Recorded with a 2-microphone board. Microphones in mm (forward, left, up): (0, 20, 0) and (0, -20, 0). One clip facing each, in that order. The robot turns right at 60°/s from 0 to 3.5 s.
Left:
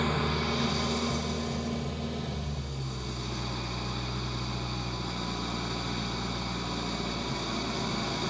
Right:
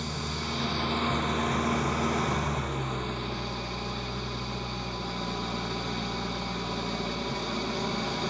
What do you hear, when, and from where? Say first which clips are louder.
0.0 s an engine running: left 5 dB; 145° left, 0.8 m; by 8.3 s 5° right, 0.8 m